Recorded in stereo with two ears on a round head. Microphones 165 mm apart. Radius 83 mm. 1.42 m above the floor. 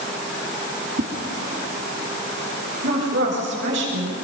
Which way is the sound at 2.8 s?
70° right (ahead or behind).